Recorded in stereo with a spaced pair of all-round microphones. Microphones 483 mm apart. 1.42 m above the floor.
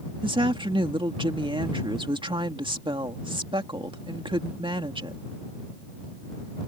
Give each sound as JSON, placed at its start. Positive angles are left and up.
{"t": 0.2, "sound": "a woman speaking", "side_deg": -10}